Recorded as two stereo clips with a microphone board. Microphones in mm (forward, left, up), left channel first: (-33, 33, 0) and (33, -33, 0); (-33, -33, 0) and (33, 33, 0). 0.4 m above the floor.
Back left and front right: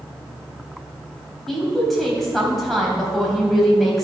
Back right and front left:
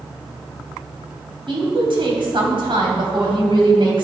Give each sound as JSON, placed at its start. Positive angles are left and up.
{"t": 1.5, "sound": "a woman speaking", "azimuth_deg": 50, "distance_m": 2.5}